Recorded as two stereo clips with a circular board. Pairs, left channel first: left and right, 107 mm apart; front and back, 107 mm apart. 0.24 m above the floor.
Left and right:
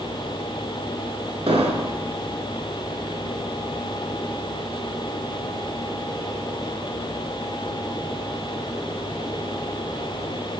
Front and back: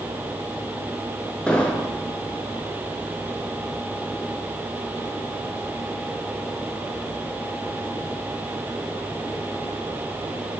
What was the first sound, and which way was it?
An explosion, 80° right.